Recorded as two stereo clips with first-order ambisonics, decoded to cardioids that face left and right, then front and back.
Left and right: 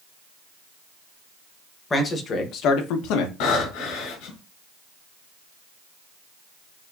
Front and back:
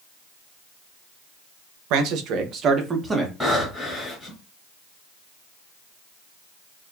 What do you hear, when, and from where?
1.9 s a man speaking: 165° left, 1.1 m; by 3.3 s 95° left, 1.1 m
3.4 s breathing: 85° left, 2.5 m